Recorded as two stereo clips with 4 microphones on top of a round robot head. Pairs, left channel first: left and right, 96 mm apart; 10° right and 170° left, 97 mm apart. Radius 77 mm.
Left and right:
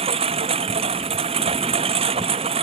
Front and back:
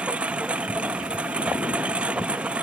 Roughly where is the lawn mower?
Right.